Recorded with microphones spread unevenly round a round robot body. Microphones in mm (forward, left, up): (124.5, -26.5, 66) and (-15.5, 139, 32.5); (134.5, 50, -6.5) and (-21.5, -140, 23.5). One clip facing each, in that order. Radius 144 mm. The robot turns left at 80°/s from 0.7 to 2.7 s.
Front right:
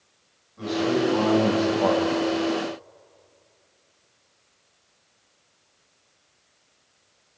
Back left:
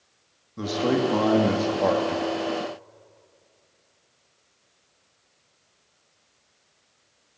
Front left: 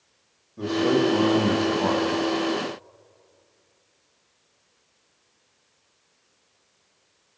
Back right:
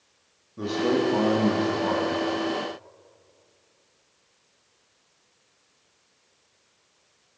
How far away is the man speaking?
About 2.0 m.